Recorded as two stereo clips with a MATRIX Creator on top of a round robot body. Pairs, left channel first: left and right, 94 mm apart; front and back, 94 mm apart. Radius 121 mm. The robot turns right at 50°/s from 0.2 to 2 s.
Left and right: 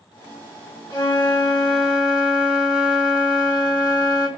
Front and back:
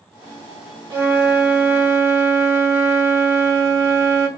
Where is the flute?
140° left, 2.5 m; by 4.3 s 165° right, 2.5 m.